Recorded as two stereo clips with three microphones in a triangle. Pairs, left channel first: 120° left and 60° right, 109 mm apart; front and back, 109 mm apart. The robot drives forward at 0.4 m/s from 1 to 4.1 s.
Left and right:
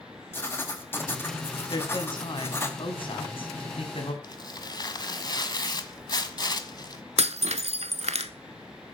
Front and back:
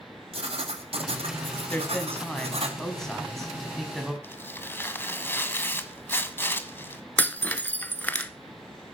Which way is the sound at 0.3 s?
175° right.